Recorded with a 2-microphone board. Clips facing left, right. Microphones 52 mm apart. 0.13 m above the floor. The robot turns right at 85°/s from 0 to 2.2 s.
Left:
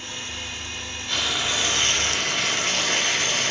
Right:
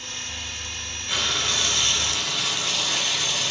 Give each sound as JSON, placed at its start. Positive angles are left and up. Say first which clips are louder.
{"t": 1.1, "sound": "frying", "louder": "even", "azimuth_deg": -10, "distance_m": 0.7}